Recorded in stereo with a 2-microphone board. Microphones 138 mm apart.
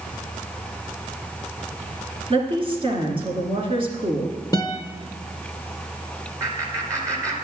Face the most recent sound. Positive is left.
turn(degrees=-25)  # may be behind; listen again after turning